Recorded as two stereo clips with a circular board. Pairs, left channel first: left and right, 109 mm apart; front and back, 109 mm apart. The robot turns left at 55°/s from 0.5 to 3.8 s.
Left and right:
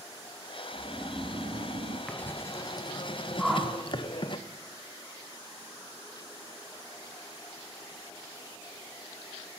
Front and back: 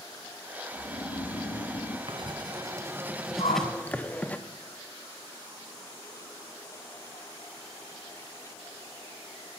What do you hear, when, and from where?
0.7 s snoring: straight ahead, 1.2 m; by 2.0 s 70° right, 1.2 m
2.1 s writing: 165° left, 0.9 m; by 4.4 s 75° left, 0.9 m
3.4 s a whoosh: 5° left, 2.0 m; by 3.7 s 10° right, 2.0 m